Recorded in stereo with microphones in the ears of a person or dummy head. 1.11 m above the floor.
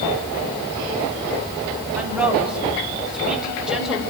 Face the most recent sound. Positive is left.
turn(degrees=-5)  # may be behind; listen again after turning